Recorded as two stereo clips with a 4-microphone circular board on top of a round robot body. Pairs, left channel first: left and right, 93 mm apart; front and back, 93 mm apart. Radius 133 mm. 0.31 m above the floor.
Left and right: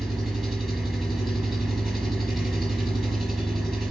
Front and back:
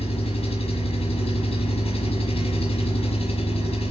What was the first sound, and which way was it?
An engine running, straight ahead.